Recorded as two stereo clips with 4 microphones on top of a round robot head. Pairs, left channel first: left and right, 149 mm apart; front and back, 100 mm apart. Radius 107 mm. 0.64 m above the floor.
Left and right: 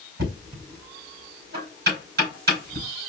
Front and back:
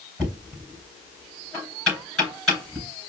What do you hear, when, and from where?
0.2 s knocking: 85° right, 3.5 m